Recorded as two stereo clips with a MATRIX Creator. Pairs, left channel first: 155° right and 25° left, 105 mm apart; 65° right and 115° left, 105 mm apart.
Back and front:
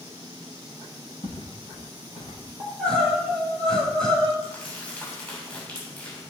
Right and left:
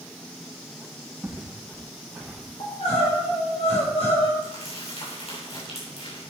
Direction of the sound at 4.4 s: 80° right.